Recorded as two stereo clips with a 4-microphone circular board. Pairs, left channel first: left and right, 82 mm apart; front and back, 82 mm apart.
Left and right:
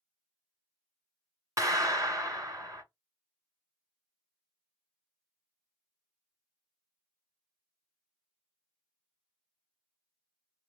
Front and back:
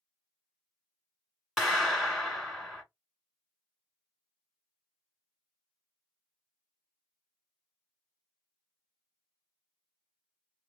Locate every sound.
1.6 s a clap: 90° right, 1.6 m